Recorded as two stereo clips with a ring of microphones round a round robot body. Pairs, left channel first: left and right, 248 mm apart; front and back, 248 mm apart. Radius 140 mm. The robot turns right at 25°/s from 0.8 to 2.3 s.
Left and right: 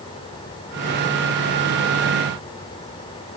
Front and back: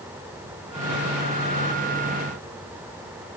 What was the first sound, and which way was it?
Only background noise.